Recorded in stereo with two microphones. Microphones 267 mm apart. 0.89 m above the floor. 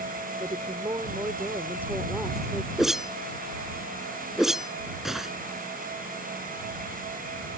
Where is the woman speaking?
20° right (ahead or behind); by 2.7 s centre (ahead or behind).